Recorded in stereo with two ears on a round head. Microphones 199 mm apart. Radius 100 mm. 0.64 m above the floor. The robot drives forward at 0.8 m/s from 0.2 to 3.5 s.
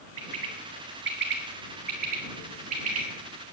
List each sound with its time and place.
0.2 s a bird: 65° right (ahead or behind), 2.5 m; by 3.0 s 35° right (ahead or behind), 4 m